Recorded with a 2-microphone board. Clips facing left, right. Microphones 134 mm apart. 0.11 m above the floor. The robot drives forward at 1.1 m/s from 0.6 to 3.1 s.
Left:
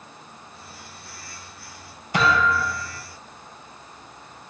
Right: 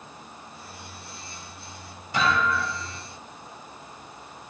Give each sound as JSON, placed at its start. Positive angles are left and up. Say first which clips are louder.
{"t": 2.1, "sound": "a thud", "louder": "left 3 dB", "side_deg": 55, "distance_m": 6.5}